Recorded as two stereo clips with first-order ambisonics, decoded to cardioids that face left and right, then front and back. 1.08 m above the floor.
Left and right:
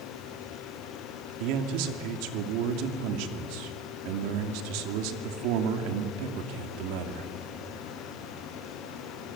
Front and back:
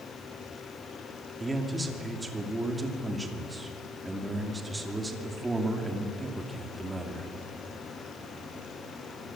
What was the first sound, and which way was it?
A man speaking, 100° right.